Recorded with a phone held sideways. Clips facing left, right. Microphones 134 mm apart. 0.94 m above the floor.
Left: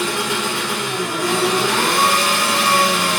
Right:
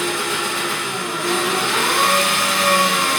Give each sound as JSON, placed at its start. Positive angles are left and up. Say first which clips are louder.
{"t": 0.0, "sound": "an engine running", "louder": "left 1 dB", "side_deg": 80, "distance_m": 4.5}